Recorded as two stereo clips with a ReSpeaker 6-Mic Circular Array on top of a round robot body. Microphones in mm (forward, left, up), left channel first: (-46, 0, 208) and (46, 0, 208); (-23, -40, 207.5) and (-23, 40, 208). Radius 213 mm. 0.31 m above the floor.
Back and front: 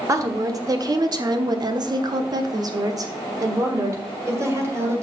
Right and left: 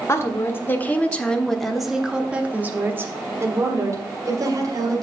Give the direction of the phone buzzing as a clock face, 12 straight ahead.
I don't hear a phone buzzing.